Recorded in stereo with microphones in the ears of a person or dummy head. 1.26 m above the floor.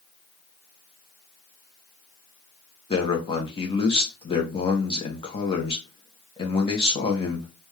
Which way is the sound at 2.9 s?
25° left (ahead or behind).